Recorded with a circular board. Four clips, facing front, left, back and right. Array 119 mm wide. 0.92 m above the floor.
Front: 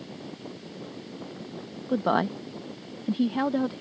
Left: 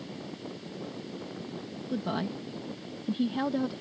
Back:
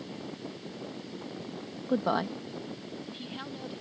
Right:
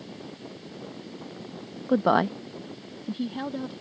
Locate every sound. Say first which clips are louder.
1.9 s a woman speaking: right 11 dB, front 4 dB; 90° right; by 3.8 s 10° left